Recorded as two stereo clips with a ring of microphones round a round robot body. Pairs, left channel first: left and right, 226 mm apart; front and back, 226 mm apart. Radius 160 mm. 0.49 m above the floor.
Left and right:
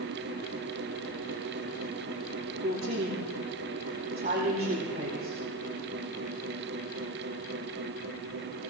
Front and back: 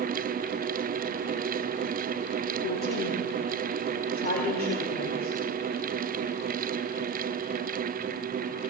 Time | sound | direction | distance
2.6 | a woman speaking | 45° right | 3 m